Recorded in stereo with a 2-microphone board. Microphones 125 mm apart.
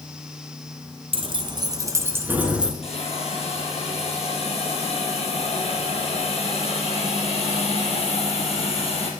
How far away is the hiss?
About 3 m.